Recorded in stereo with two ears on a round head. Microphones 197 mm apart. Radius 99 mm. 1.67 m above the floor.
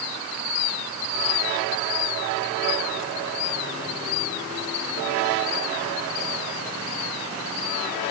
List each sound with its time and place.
Only background noise.